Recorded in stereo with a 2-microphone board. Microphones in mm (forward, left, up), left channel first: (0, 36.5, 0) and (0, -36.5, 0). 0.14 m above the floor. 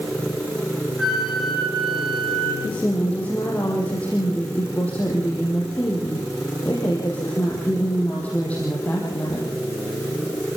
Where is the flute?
Centre (ahead or behind), 3.5 m.